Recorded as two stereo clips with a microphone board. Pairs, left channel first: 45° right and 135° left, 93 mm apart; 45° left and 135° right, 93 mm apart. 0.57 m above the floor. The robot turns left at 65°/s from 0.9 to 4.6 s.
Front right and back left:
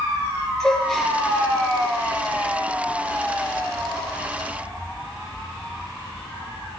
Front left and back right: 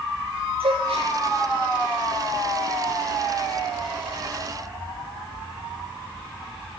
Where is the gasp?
130° right, 6 m; by 1.1 s 145° right, 6 m.